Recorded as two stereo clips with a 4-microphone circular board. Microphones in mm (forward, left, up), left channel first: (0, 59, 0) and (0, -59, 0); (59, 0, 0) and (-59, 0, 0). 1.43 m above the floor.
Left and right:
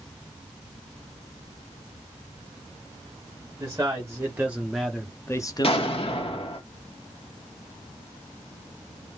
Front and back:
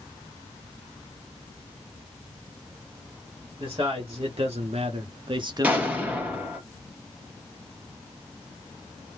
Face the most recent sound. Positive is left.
turn(degrees=105)